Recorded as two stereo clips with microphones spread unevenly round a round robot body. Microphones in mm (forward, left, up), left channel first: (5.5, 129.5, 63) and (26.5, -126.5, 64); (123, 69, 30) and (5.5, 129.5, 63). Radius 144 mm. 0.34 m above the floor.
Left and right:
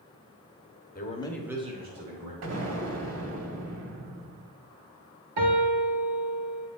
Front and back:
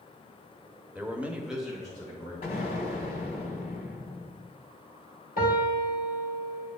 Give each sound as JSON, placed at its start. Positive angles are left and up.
{"t": 0.9, "sound": "a man speaking", "azimuth_deg": 65, "distance_m": 1.1}
{"t": 2.4, "sound": "an explosion", "azimuth_deg": -65, "distance_m": 1.1}
{"t": 5.4, "sound": "a piano", "azimuth_deg": -70, "distance_m": 1.4}